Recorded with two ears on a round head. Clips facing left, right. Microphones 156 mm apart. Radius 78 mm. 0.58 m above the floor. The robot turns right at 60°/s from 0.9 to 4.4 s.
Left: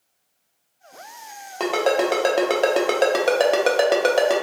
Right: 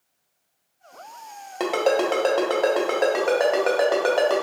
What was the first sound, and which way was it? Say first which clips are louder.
A ringtone: left 1 dB; 5° right (ahead or behind).